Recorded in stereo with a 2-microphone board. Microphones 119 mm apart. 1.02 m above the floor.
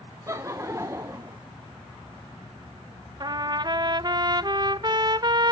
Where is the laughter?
25° right (ahead or behind), 0.7 m.